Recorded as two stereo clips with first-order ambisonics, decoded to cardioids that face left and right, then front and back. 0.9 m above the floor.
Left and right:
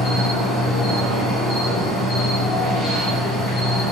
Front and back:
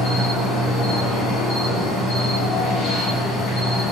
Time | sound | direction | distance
0.0 | an insect | 20° left | 1.4 m